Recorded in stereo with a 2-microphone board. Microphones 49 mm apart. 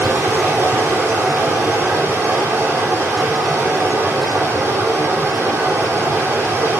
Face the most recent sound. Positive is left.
turn(degrees=-50)  # may be behind; listen again after turning